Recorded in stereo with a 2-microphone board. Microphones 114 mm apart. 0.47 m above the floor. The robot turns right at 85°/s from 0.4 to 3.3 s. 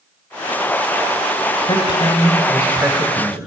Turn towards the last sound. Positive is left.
turn(degrees=-115)